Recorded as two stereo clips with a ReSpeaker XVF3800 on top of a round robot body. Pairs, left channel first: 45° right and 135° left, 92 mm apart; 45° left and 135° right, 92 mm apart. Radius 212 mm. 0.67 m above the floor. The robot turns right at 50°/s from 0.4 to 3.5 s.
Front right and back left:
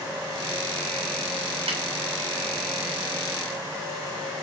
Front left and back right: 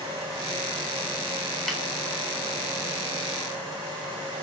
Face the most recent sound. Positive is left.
turn(degrees=-140)